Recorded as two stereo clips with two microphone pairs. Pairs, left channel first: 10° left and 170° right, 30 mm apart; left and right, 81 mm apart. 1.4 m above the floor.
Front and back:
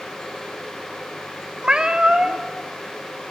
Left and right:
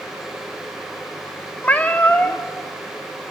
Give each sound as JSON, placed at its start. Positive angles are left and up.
{"t": 1.6, "sound": "a cat meowing", "azimuth_deg": 150, "distance_m": 1.1}